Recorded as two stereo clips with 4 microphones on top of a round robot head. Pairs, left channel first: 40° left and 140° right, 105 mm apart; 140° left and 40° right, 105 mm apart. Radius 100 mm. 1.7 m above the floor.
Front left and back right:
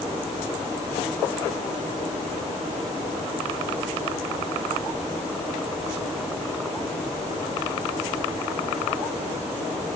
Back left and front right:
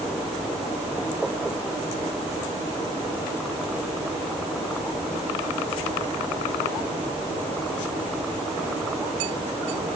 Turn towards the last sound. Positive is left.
No sound to turn to.